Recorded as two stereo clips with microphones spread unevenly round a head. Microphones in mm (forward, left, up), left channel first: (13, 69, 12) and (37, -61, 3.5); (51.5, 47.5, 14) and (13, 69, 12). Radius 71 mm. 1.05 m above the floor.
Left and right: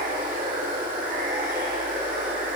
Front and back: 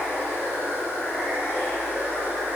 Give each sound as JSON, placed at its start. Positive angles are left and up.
{"t": 0.0, "sound": "running water", "azimuth_deg": -120, "distance_m": 10.0}